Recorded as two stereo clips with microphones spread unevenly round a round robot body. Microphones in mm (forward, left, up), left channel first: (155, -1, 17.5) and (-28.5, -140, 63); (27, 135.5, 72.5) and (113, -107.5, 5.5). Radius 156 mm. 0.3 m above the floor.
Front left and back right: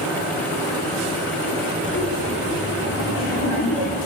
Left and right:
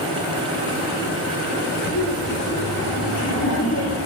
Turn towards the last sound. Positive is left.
turn(degrees=60)